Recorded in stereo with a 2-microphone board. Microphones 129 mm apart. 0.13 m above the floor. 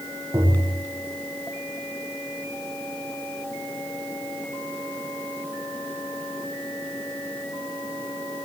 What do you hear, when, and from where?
0.3 s tapping: 20° right (ahead or behind), 9 m